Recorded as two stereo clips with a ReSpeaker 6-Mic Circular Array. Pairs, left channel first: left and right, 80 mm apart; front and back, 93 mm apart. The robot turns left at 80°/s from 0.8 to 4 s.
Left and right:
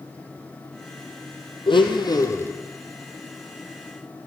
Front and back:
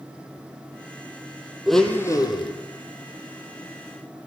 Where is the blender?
95° left, 1.4 m; by 2.5 s 25° left, 1.4 m.